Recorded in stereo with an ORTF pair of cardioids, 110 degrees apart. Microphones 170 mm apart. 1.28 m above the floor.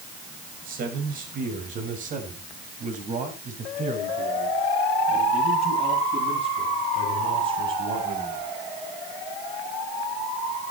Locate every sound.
0.7 s a man speaking: 60° right, 6 m; by 8.4 s 30° right, 9.5 m